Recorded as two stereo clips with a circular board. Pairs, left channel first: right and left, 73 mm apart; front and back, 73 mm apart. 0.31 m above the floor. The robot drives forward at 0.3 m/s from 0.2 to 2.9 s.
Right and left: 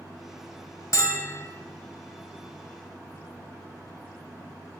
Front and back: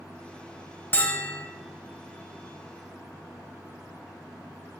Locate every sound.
0.9 s a bell: 55° right, 0.7 m; by 1.4 s 70° right, 0.6 m